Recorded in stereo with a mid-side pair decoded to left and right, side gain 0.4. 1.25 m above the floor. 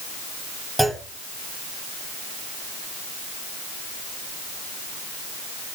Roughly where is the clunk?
Ahead.